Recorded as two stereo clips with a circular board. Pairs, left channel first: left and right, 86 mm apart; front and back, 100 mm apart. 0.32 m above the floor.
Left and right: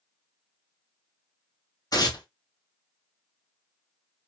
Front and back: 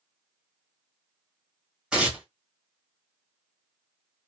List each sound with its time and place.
1.9 s tearing paper: 100° left, 1.7 m